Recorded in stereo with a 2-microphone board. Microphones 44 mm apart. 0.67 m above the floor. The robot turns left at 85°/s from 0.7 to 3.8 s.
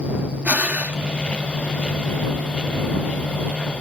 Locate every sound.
0.5 s breathing: 40° right (ahead or behind)